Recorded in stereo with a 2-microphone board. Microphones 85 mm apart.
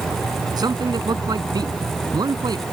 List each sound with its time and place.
0.6 s a man speaking: 55° right (ahead or behind)